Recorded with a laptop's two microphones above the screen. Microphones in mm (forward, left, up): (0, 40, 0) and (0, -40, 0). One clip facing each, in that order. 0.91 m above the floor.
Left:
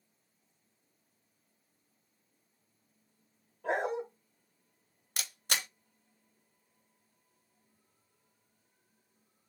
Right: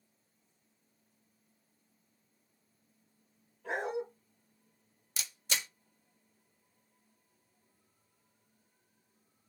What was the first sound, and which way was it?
A dog barking, 75° left (ahead or behind).